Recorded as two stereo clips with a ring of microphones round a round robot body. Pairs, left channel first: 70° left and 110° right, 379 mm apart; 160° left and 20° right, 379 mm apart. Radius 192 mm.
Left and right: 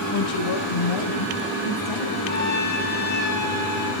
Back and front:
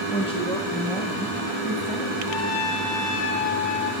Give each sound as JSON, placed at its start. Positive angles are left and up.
{"t": 0.1, "sound": "a woman speaking", "azimuth_deg": 85, "distance_m": 2.0}
{"t": 2.3, "sound": "a trumpet", "azimuth_deg": 135, "distance_m": 6.0}